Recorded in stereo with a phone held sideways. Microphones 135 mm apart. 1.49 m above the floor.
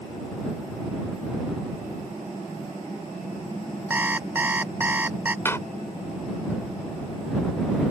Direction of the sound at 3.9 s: 15° right (ahead or behind).